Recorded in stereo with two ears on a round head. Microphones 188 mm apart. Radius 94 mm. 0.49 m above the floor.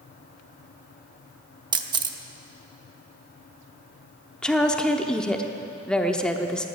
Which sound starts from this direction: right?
A camera shutter, at 1.7 s.